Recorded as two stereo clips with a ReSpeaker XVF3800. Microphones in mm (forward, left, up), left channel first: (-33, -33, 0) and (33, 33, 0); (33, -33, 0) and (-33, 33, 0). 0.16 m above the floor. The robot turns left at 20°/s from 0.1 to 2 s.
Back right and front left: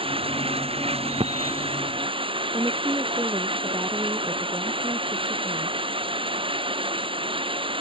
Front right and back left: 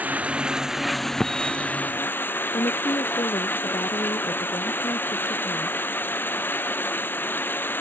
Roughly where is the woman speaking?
Ahead.